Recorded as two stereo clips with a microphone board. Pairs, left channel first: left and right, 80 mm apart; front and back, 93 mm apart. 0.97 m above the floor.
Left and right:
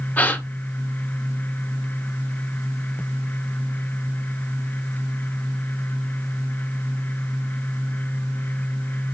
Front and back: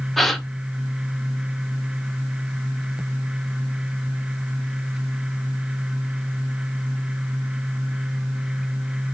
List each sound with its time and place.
0.2 s a gasp: 85° left, 0.7 m